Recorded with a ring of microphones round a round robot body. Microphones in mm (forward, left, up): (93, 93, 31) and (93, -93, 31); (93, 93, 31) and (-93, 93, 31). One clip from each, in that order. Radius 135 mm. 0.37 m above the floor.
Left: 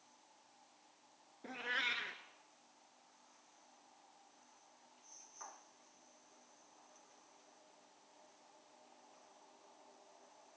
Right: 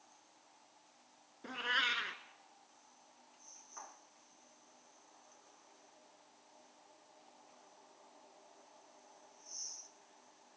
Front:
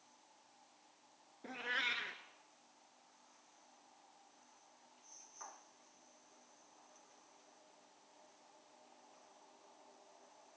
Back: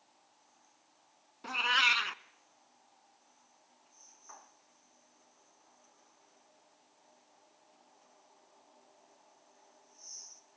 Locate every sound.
1.4 s a cat meowing: 170° right, 0.5 m